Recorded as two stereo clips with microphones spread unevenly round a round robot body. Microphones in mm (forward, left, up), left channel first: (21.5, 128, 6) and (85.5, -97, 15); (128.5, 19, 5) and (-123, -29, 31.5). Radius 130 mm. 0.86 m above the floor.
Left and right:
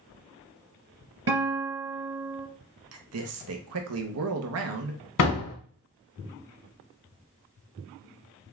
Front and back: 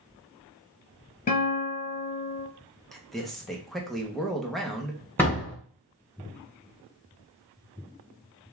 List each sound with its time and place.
1.3 s a guitar: 55° right, 3 m
2.9 s a man speaking: 75° right, 0.8 m
5.2 s a door slam: 95° left, 1.9 m